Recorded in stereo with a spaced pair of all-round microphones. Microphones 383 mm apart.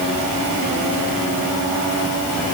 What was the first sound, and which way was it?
Only background noise.